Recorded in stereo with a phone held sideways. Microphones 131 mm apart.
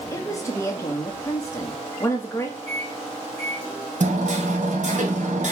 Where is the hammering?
70° right (ahead or behind), 2.5 m.